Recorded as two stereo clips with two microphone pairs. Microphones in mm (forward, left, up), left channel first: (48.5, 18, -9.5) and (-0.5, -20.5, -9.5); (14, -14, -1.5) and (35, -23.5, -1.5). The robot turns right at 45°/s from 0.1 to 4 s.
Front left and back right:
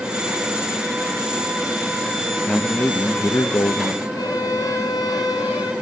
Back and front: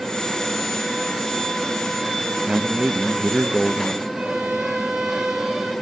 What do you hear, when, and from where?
2.5 s a man speaking: 30° right, 0.7 m; by 4.0 s 40° left, 0.7 m
4.2 s a violin: 30° left, 2.5 m